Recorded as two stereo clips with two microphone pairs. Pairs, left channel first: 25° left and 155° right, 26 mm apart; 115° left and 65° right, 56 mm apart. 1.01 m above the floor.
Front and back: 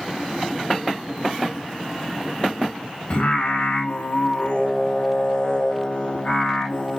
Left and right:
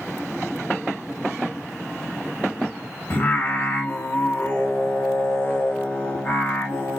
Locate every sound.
3.1 s singing: 60° left, 2 m